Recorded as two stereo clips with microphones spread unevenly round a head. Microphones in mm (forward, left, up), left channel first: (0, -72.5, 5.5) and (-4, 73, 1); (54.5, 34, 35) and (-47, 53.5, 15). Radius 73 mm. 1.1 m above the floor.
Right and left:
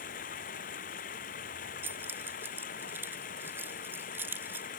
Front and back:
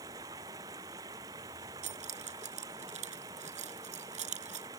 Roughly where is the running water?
Behind right.